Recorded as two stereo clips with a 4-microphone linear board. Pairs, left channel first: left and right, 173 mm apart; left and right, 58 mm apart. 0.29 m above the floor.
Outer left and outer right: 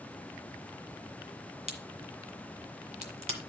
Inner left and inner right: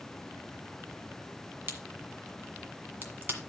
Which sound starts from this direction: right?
A crack, at 1.7 s.